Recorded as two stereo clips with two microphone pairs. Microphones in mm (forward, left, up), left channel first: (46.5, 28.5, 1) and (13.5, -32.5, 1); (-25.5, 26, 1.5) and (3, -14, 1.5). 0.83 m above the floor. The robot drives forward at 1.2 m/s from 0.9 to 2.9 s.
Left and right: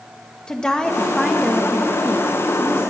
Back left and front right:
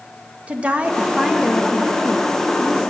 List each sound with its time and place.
0.5 s a woman speaking: 5° right, 1.1 m; by 2.9 s 175° right, 1.9 m